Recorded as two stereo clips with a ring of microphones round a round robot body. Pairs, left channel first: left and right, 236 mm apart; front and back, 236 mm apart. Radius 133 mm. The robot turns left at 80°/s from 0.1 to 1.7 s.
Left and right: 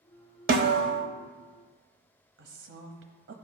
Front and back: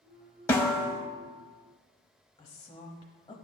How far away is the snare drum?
About 0.6 m.